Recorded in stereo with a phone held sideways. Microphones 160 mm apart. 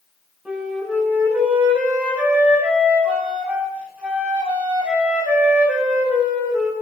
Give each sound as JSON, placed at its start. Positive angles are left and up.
{"t": 0.5, "sound": "a flute", "side_deg": -10, "distance_m": 8.5}